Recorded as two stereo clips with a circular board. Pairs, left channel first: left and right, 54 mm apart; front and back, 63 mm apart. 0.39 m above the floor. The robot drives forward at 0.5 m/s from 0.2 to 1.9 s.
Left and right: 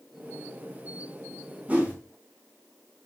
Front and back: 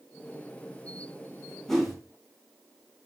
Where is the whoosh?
80° right, 1.0 m; by 1.9 s 95° right, 1.0 m.